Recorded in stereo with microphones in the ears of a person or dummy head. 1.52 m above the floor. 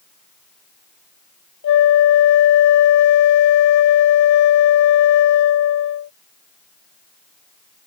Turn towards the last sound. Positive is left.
turn(degrees=70)  # may be behind; listen again after turning